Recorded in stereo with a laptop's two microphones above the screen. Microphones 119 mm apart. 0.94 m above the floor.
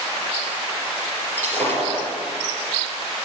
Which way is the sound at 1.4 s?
20° left (ahead or behind).